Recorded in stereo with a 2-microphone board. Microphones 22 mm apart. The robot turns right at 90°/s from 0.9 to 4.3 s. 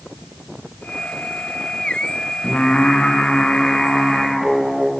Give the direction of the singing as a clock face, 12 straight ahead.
11 o'clock.